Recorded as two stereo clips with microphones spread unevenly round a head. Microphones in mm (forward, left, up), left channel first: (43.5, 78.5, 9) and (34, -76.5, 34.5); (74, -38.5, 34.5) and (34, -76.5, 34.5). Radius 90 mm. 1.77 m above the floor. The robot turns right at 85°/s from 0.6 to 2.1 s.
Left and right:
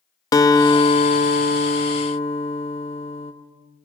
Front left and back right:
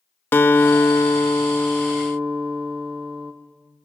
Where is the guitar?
15° left, 1.3 m; by 3.3 s 145° left, 1.3 m.